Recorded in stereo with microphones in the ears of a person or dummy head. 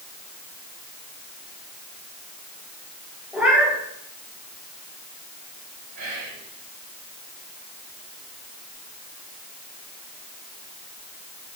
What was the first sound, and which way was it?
A cat meowing, 10° right (ahead or behind).